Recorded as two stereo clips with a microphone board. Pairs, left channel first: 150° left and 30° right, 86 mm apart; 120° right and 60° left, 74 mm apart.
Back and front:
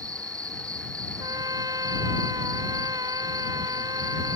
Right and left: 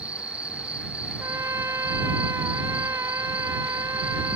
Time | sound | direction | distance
0.0 | an insect | 5° right | ?
1.2 | a trumpet | 10° left | ?